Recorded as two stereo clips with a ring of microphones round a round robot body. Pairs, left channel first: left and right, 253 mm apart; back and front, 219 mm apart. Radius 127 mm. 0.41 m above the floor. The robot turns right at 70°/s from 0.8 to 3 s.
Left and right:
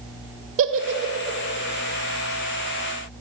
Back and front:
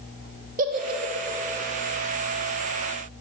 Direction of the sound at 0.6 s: 55° right.